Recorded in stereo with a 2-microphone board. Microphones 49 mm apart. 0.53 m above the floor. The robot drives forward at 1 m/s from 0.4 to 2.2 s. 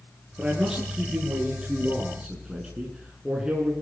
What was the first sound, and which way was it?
A man speaking, 15° right (ahead or behind).